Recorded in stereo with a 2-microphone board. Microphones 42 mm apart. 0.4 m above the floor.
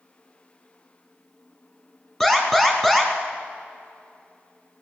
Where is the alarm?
Centre (ahead or behind), 2 m.